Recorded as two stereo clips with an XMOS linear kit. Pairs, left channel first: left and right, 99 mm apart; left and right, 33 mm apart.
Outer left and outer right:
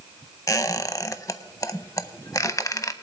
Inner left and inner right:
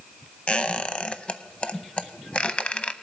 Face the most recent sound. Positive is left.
turn(degrees=35)  # may be behind; listen again after turning